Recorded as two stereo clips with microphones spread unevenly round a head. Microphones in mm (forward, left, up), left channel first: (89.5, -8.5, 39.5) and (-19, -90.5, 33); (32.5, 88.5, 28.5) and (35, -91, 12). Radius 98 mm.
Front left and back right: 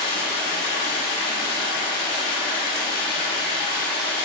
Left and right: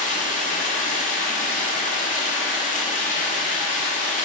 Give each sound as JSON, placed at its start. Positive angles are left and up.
{"t": 0.0, "sound": "running water", "azimuth_deg": 45, "distance_m": 0.7}